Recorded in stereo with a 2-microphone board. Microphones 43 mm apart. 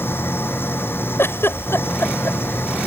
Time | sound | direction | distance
0.0 | an engine running | 60° left (ahead or behind) | ?
1.2 | a giggle | 75° left (ahead or behind) | ?